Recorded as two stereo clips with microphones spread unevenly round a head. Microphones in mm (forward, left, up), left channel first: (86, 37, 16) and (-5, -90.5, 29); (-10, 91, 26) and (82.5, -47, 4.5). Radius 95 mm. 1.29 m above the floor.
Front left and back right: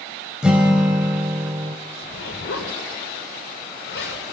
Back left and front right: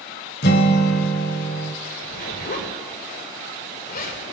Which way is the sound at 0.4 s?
150° left.